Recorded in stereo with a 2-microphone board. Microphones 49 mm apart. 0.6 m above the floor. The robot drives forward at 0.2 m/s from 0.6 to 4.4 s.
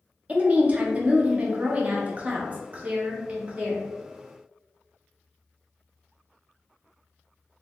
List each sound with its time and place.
0.3 s a woman speaking: 30° right (ahead or behind), 0.7 m; by 3.9 s 25° right (ahead or behind), 0.9 m